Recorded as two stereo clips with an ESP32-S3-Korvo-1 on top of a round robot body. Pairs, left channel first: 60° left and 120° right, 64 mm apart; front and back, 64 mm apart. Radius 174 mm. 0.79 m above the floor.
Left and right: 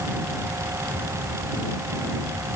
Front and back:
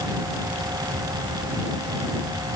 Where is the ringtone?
No ringtone in this recording.